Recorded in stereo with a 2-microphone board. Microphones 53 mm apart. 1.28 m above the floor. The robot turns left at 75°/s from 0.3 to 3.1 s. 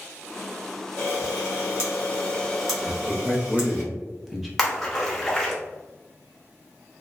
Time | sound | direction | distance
1.0 | a camera shutter | 50° left (ahead or behind) | 0.8 m
2.8 | a man speaking | 20° right (ahead or behind) | 0.6 m
4.6 | a splash | 5° left (ahead or behind) | 0.6 m